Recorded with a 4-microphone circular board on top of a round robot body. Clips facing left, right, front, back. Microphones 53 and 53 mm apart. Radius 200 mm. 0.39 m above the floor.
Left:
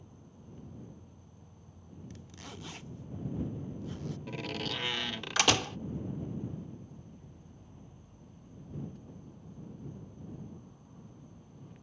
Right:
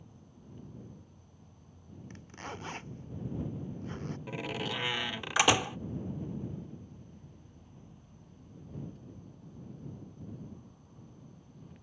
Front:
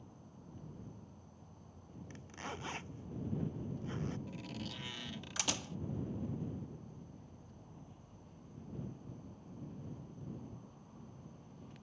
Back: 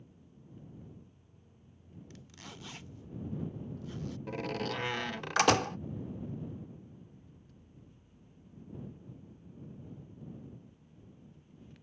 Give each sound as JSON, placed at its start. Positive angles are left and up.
{"t": 0.0, "sound": "an insect", "azimuth_deg": 5}
{"t": 2.1, "sound": "a zipper", "azimuth_deg": -50}
{"t": 4.3, "sound": "a door slam", "azimuth_deg": -160}